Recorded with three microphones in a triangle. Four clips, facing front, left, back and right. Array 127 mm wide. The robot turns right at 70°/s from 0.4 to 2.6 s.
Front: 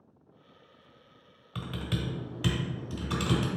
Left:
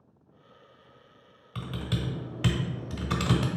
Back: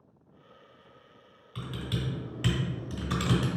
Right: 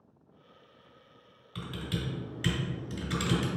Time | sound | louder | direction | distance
1.6 | typing on a keyboard | left 3 dB, front 1 dB | 20° left | 1.2 m